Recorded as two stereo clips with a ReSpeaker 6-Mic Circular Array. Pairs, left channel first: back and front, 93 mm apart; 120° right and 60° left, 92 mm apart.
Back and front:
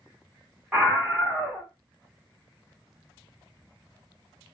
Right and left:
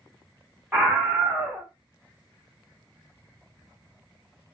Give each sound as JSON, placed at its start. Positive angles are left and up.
{"t": 0.7, "sound": "a scream", "azimuth_deg": 45, "distance_m": 1.1}